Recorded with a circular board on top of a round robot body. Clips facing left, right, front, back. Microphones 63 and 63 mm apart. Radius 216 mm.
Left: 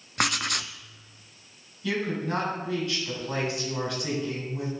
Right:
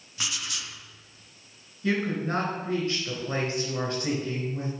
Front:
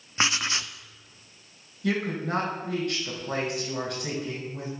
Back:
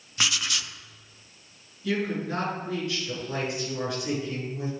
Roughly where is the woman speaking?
Ahead right.